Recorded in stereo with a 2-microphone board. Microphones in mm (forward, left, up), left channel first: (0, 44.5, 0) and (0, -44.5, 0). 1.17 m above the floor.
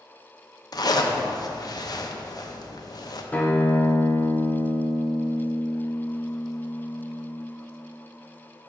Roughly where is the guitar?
Centre.